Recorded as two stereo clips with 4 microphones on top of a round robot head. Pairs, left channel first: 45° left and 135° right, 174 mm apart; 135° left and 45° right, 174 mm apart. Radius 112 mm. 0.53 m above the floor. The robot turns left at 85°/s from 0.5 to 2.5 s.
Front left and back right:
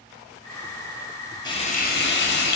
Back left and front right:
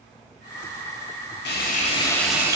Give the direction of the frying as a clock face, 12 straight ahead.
8 o'clock.